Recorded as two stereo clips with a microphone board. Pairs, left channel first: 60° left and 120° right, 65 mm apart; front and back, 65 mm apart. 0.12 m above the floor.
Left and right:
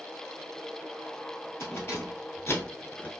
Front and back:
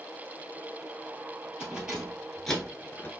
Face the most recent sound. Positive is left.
turn(degrees=0)